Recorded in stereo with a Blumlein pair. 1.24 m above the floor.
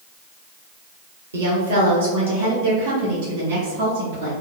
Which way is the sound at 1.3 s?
65° right.